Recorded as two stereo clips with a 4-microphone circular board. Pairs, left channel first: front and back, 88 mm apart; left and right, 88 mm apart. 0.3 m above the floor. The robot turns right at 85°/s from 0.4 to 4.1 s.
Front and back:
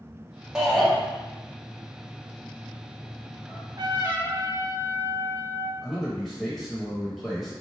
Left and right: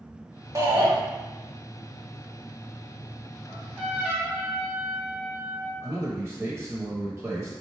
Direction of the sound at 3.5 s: 165° left.